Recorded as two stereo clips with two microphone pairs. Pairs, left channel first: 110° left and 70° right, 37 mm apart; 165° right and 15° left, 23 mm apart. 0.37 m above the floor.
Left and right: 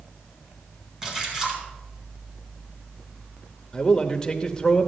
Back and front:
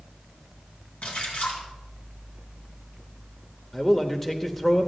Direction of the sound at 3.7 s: 130° left.